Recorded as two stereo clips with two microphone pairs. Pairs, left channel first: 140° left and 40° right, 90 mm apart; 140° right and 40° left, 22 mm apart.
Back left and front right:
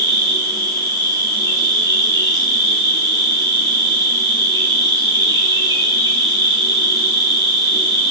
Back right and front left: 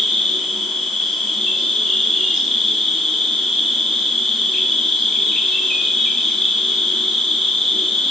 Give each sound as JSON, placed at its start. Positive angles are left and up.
{"t": 0.0, "sound": "an insect", "azimuth_deg": -75, "distance_m": 2.5}